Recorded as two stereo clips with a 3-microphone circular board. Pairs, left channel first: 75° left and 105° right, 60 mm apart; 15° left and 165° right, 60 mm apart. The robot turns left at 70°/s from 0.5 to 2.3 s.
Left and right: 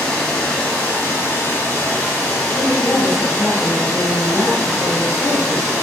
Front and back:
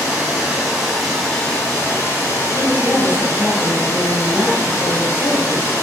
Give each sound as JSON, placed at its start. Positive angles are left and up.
{"t": 0.0, "sound": "running water", "azimuth_deg": 135, "distance_m": 1.0}
{"t": 2.5, "sound": "a woman speaking", "azimuth_deg": 120, "distance_m": 1.8}